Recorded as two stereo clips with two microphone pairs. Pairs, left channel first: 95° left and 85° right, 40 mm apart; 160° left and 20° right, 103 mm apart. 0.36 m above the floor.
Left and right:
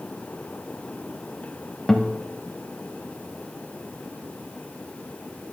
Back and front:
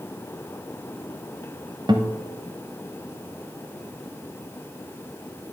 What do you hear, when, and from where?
1.9 s a guitar: 15° left, 0.6 m